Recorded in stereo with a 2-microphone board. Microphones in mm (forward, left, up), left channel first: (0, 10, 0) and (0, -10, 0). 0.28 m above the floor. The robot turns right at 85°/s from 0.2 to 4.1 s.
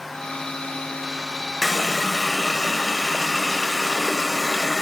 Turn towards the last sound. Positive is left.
turn(degrees=-10)  # may be behind; listen again after turning